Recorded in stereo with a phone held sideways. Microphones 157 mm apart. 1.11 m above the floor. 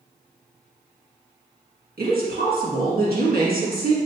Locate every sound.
2.0 s a woman speaking: 75° right (ahead or behind), 1.5 m